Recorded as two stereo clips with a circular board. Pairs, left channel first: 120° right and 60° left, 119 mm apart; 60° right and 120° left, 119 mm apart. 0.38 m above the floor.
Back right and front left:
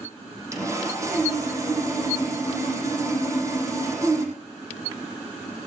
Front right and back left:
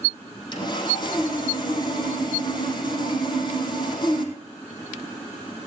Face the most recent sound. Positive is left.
turn(degrees=-5)